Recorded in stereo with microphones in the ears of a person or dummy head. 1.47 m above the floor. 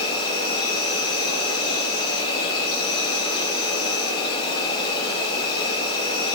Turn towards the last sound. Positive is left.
turn(degrees=30)  # may be behind; listen again after turning